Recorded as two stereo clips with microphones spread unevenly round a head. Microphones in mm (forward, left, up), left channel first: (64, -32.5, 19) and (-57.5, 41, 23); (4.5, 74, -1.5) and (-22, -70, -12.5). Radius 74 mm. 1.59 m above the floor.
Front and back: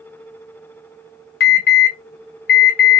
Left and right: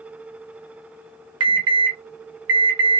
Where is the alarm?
35° right, 1.0 m.